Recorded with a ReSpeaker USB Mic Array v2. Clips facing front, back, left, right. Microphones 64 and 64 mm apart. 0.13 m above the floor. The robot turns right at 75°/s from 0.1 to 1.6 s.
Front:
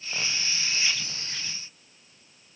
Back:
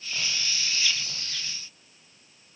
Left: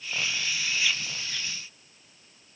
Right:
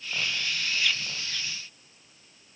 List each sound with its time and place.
Only background noise.